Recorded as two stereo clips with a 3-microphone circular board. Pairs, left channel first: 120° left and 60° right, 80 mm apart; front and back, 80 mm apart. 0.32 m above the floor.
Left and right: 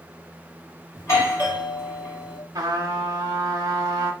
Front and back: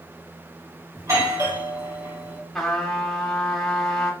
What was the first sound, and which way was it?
A doorbell, 150° left.